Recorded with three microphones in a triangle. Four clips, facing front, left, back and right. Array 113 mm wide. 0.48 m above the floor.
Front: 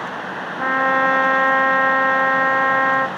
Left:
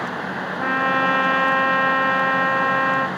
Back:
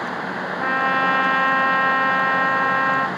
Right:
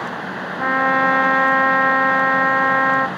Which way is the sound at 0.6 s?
45° right.